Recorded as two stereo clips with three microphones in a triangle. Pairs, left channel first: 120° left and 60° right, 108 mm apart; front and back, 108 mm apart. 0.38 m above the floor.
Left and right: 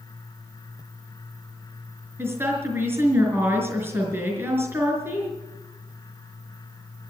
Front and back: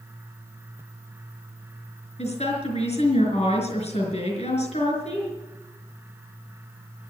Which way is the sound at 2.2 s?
10° left.